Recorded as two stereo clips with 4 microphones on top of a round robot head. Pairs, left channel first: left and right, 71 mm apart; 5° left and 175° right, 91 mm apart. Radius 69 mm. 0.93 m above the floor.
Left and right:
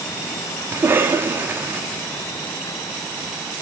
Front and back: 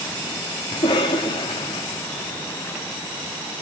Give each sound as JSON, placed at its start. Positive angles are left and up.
{"t": 0.7, "sound": "a cough", "azimuth_deg": -35, "distance_m": 1.6}